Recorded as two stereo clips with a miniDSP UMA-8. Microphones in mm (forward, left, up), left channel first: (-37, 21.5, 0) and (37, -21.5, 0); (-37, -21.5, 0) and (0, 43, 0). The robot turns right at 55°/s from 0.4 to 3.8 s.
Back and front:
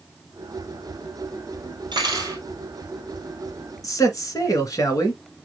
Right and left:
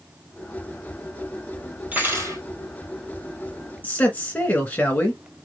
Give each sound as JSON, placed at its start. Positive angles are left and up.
{"t": 1.9, "sound": "cutlery clinking", "azimuth_deg": -5, "distance_m": 2.0}
{"t": 3.8, "sound": "a man speaking", "azimuth_deg": 180, "distance_m": 1.6}